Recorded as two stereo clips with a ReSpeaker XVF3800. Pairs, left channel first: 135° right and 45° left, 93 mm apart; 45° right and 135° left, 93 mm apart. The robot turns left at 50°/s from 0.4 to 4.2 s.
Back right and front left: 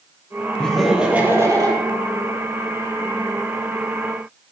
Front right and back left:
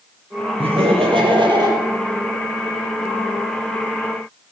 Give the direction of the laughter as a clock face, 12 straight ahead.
7 o'clock.